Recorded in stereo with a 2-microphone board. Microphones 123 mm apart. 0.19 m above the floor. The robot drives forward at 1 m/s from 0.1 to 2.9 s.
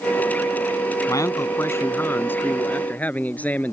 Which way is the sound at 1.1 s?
30° left (ahead or behind).